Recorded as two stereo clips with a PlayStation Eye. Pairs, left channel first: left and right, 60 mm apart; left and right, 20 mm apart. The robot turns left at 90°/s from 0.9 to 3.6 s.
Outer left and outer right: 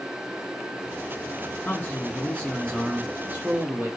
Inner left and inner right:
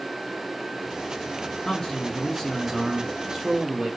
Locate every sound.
1.6 s a man speaking: 105° left, 0.7 m; by 3.9 s 70° right, 0.7 m